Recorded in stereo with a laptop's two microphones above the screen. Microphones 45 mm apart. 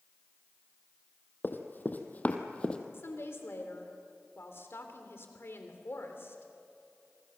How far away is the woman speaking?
About 3 m.